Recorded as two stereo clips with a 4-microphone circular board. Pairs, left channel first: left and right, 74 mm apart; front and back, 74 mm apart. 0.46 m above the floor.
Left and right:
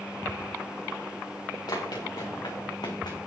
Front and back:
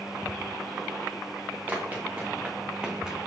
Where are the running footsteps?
115° left, 3.5 m; by 3.3 s 95° left, 1.9 m.